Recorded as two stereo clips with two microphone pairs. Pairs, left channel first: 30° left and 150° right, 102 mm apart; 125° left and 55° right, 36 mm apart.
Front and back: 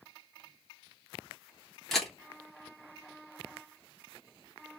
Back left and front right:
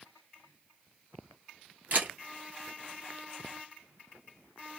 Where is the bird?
I don't hear a bird.